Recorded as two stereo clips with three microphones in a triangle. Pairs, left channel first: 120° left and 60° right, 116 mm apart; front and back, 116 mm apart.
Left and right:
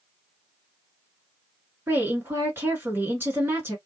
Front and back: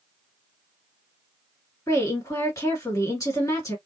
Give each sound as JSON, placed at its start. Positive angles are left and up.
{"t": 1.9, "sound": "a woman speaking", "azimuth_deg": -10, "distance_m": 1.7}